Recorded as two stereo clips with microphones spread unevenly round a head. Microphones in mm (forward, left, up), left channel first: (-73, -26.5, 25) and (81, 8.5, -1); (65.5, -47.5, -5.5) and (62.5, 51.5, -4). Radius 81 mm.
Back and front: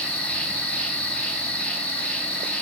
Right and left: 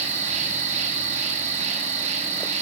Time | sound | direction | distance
0.0 | an insect | 110° left | 1.1 m